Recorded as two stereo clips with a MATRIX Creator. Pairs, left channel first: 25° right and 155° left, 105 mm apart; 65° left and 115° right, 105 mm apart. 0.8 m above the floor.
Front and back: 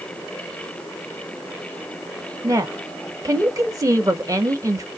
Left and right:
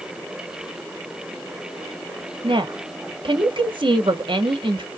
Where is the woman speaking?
145° right, 0.9 m.